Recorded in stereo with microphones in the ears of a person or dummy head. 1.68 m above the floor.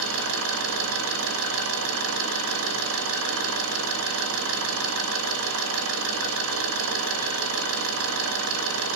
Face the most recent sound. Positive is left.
turn(degrees=-85)